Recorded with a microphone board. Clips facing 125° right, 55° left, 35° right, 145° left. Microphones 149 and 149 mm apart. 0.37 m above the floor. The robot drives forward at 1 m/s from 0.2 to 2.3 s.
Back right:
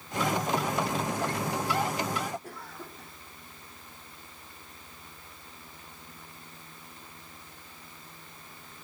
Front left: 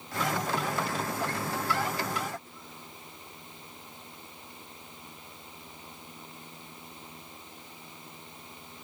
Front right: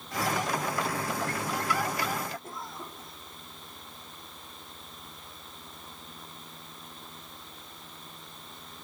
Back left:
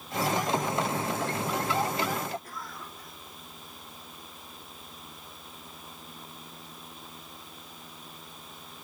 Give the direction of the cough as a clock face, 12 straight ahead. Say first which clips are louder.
Back right 5 dB, front right 2 dB; 3 o'clock.